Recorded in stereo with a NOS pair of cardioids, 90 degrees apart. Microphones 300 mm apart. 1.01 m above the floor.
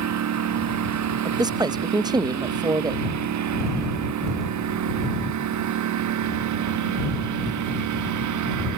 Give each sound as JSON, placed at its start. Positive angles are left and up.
{"t": 0.0, "sound": "a lawn mower", "azimuth_deg": -65}
{"t": 1.2, "sound": "a man speaking", "azimuth_deg": -15}